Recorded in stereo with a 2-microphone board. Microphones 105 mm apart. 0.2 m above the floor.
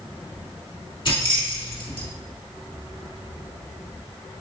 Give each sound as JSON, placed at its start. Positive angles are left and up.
{"t": 1.1, "sound": "keys jangling", "side_deg": 55, "distance_m": 1.6}